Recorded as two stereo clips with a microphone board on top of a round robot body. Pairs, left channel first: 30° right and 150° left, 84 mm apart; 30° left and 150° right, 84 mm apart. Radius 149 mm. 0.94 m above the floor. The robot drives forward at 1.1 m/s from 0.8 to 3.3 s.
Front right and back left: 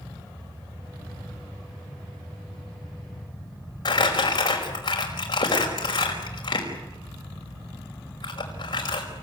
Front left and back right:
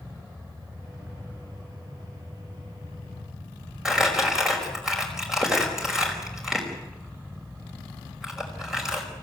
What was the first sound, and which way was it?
Crumpling, 65° right.